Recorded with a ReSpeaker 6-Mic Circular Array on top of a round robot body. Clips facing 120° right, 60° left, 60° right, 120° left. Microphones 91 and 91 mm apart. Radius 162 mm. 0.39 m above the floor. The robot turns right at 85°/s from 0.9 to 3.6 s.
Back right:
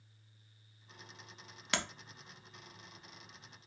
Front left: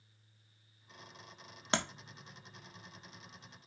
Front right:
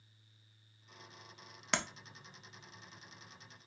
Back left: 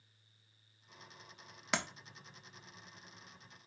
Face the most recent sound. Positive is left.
turn(degrees=-165)